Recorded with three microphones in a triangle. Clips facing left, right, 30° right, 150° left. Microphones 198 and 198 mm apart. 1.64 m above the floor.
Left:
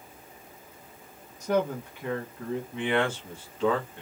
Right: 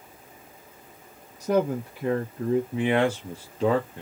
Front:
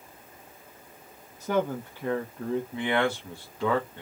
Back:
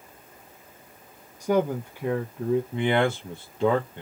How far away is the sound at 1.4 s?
About 0.9 m.